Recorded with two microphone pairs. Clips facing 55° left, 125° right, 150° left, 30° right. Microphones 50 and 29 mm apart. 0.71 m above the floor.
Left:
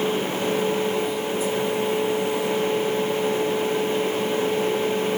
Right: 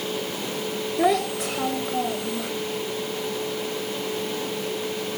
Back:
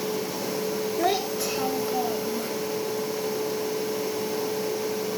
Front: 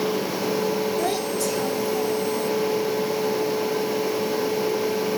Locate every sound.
1.0 s a child speaking: 135° right; by 2.5 s 155° right